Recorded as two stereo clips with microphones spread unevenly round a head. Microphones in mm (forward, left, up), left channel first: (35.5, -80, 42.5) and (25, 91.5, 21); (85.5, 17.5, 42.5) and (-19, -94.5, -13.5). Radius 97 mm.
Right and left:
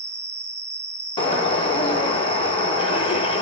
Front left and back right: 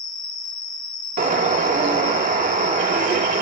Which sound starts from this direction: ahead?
An insect, at 0.0 s.